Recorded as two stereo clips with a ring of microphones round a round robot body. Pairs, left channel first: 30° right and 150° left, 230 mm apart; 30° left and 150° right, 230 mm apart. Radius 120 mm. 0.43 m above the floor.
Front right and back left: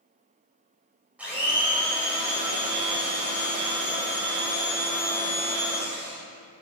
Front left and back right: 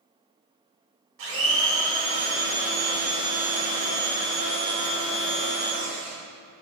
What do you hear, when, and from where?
1.2 s a blender: 125° right, 2.5 m